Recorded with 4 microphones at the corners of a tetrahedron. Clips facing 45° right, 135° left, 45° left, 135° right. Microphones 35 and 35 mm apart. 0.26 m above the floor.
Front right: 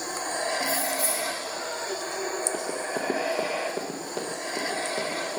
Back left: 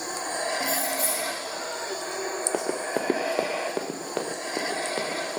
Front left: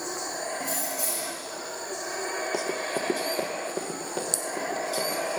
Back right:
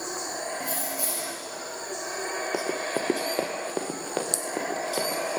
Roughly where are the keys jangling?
Behind left.